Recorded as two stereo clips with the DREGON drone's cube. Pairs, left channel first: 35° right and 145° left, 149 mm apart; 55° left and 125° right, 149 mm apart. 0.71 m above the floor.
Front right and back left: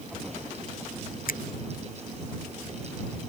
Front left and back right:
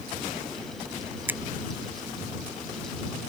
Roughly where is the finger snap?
Ahead right.